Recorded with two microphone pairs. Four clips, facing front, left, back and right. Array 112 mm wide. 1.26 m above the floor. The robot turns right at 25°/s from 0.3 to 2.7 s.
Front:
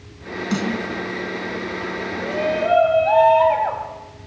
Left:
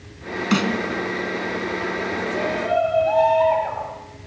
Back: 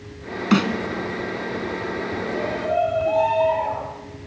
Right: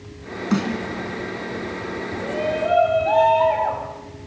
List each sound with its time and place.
0.5 s a snare drum: 155° left, 2.5 m; by 0.7 s 160° left, 2.5 m
2.2 s a shout: 35° right, 7 m; by 3.9 s 20° right, 7 m